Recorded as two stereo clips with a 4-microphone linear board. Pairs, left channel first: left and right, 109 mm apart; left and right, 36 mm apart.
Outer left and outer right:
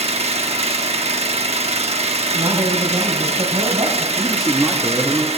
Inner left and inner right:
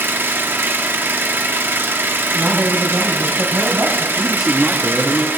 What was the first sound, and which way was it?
An engine running, 75° right (ahead or behind).